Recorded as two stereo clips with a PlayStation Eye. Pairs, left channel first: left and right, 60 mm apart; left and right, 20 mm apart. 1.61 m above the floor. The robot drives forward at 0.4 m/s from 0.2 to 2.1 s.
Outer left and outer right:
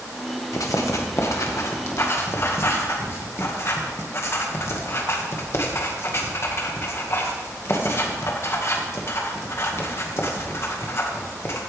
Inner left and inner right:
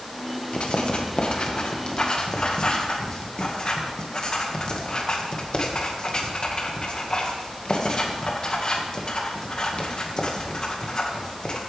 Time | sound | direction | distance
0.5 | writing | 65° left (ahead or behind) | 1.4 m